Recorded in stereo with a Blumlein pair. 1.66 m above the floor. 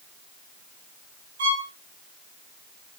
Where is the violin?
60° right, 2.5 m.